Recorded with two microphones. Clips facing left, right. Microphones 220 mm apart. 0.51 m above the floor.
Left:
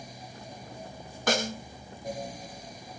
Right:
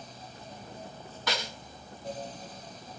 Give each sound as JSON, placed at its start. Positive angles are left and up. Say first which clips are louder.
{"t": 1.3, "sound": "a snare drum", "louder": "left 8 dB", "side_deg": 50, "distance_m": 0.5}